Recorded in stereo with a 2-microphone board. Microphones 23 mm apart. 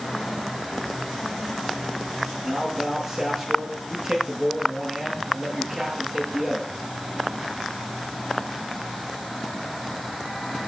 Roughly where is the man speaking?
Right.